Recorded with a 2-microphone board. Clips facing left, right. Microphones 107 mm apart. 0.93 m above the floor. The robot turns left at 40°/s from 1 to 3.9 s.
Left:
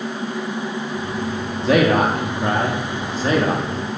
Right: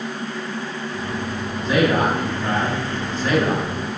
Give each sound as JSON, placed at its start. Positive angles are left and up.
{"t": 1.6, "sound": "a man speaking", "azimuth_deg": 100, "distance_m": 1.3}